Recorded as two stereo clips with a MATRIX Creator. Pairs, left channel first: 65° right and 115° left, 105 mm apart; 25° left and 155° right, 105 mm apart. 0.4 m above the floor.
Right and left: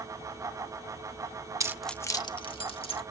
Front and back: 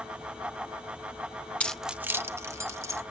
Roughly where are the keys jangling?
Left.